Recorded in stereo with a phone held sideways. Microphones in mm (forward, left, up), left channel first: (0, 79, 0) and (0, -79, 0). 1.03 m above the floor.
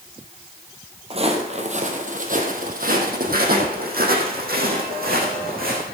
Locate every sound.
1.1 s footsteps: 40° right (ahead or behind), 2 m; by 5.8 s 70° right (ahead or behind), 4.5 m